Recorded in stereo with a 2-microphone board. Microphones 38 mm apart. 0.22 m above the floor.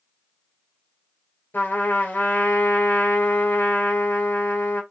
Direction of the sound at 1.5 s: 70° left (ahead or behind).